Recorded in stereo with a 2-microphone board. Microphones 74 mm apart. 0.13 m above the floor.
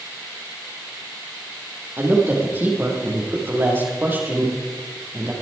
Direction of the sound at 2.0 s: 30° right (ahead or behind).